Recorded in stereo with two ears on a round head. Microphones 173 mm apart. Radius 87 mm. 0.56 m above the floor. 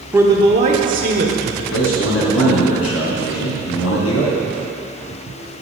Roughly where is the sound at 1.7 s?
Left.